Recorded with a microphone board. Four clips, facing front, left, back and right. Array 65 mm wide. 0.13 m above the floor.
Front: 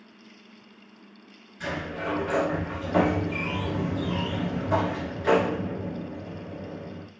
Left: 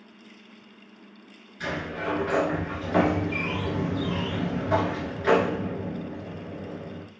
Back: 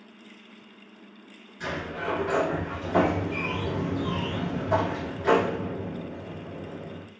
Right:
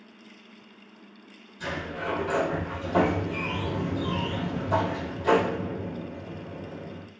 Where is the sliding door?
85° left, 1.3 m.